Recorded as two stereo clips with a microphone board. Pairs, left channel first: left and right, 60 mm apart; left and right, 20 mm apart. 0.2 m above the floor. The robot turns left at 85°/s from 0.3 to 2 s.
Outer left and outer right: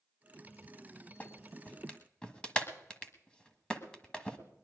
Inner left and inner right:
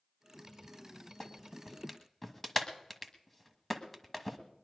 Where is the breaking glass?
I don't hear breaking glass.